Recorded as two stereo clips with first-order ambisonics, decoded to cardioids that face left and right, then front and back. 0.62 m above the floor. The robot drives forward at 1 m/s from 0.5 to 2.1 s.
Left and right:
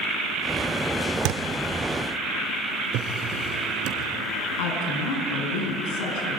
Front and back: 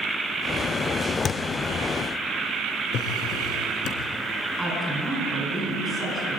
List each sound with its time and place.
1.2 s a thud: 65° right, 0.7 m; by 1.4 s 80° right, 0.6 m
2.9 s a drawer: 50° right, 2.5 m
4.6 s a woman speaking: 95° left, 6 m